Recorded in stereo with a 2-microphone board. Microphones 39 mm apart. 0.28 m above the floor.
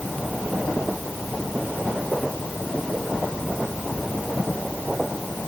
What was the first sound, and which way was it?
Only background noise.